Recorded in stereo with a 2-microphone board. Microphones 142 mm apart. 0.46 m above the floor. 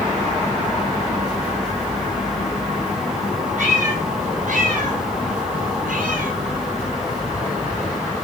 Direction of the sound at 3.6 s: 65° right (ahead or behind).